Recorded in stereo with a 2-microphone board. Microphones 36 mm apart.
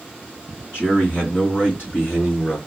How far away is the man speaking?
About 2.5 m.